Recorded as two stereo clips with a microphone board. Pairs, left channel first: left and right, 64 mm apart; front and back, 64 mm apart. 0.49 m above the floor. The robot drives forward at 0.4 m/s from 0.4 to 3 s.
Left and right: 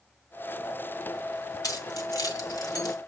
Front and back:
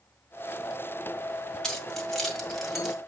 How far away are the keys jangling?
About 1.9 m.